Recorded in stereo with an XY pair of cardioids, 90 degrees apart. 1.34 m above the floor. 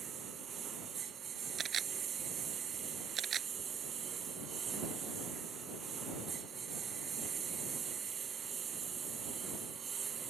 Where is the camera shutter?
60° right.